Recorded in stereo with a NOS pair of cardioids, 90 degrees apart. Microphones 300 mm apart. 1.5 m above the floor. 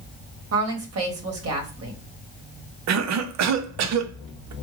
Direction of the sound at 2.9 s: 65° right.